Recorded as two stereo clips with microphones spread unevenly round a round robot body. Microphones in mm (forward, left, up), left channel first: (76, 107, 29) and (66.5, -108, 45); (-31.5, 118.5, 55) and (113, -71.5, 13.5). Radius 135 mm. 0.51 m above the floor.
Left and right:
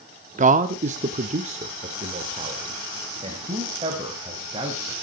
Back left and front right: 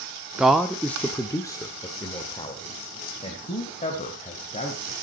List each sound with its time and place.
0.4 s a man speaking: 120° right, 0.9 m; by 4.9 s 165° right, 3 m